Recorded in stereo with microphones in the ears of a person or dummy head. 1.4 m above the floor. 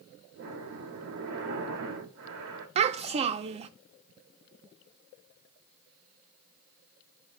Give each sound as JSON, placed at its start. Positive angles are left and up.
{"t": 0.3, "sound": "breathing", "side_deg": -55, "distance_m": 2.0}
{"t": 2.8, "sound": "a child speaking", "side_deg": -30, "distance_m": 0.7}